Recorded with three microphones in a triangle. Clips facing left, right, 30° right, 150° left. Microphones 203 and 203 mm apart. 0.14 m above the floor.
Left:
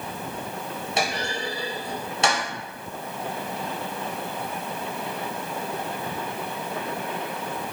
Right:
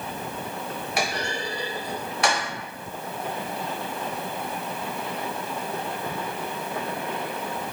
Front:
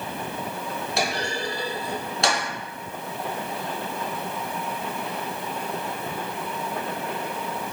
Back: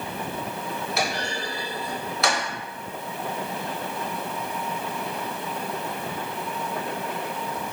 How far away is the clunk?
About 1.1 m.